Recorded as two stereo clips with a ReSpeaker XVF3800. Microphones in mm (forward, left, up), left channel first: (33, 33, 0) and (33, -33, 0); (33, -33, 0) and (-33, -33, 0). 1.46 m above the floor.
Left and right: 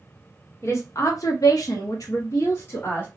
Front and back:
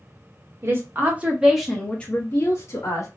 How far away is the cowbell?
I don't hear a cowbell.